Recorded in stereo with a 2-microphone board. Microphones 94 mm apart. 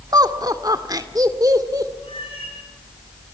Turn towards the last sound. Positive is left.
turn(degrees=90)